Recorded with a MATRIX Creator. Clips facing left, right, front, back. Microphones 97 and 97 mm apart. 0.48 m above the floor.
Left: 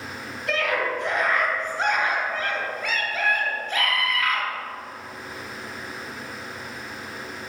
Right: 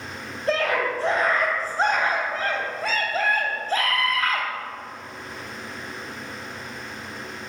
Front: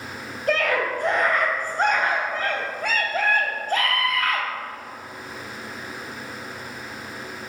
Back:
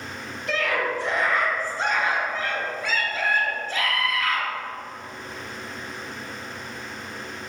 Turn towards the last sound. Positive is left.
turn(degrees=-35)